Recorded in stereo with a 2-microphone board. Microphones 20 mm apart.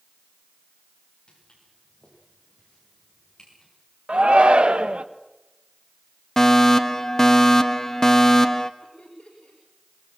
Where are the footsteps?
40° left (ahead or behind), 10 m; by 3.7 s 30° left (ahead or behind), 9.5 m.